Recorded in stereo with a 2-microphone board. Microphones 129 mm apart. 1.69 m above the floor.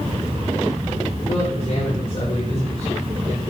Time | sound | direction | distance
1.3 | a man speaking | 45° left (ahead or behind) | 7.5 m